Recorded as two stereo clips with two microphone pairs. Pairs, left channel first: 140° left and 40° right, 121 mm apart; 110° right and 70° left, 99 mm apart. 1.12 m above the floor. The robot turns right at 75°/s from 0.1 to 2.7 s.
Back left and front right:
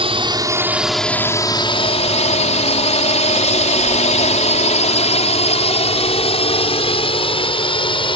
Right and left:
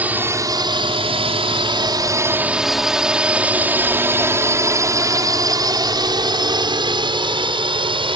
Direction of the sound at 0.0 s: 5° right.